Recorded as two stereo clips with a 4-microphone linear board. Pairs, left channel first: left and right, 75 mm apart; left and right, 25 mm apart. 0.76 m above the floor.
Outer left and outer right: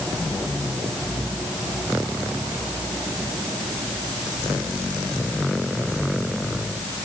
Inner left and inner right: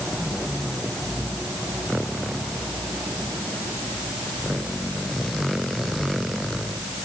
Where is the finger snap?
No finger snap in this recording.